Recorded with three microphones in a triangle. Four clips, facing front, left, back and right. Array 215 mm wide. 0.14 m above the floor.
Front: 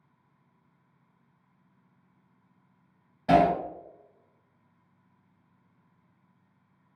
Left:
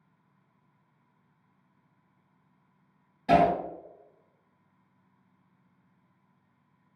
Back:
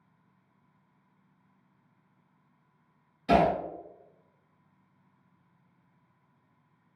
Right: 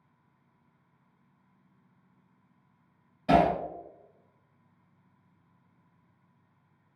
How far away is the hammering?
About 1.6 m.